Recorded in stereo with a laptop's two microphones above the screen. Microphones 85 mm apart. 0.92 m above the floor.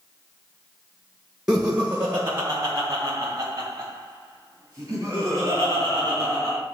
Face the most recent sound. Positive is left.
turn(degrees=-35)  # may be behind; listen again after turning